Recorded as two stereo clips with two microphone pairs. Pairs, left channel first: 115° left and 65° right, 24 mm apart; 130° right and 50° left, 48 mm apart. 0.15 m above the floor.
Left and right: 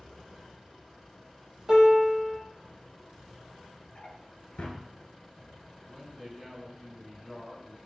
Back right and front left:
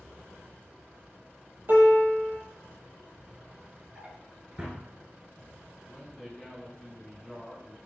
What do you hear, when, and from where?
1.7 s a piano: 5° left, 0.9 m
4.0 s a drawer: 110° left, 0.9 m
5.9 s a man speaking: 120° right, 1.4 m